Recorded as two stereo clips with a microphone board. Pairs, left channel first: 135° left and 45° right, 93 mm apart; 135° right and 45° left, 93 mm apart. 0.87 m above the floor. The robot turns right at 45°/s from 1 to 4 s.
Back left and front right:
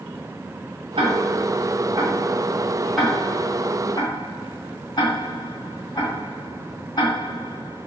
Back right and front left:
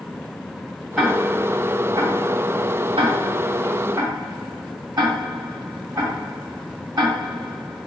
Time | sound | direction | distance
1.0 | ticking | 50° right | 3 m